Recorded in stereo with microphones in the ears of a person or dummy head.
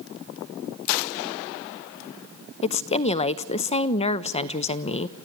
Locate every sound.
2.6 s a woman speaking: 30° left (ahead or behind), 0.6 m